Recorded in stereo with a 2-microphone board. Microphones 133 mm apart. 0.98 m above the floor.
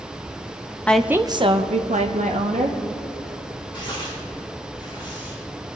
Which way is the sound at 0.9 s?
10° left (ahead or behind).